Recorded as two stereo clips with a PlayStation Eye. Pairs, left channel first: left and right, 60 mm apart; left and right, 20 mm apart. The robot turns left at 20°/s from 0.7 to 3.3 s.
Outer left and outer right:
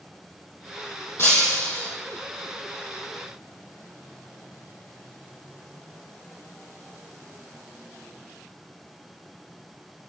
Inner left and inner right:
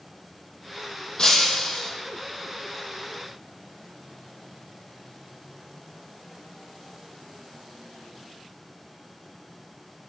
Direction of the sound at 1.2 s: 45° left (ahead or behind).